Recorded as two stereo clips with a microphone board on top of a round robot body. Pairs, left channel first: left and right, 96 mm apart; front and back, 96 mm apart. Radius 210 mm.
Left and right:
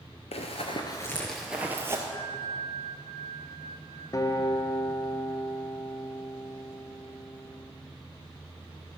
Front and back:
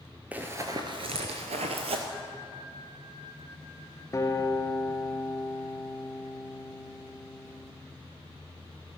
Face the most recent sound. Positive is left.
turn(degrees=45)